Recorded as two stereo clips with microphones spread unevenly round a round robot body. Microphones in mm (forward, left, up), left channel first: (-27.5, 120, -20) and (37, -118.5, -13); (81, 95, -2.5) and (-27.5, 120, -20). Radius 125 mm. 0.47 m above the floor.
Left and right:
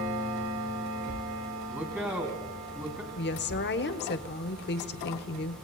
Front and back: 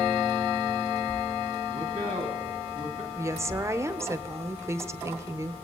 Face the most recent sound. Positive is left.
turn(degrees=125)